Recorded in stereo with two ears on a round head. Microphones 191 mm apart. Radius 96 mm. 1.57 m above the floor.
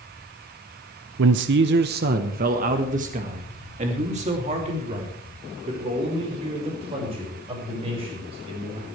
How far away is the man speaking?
About 0.6 m.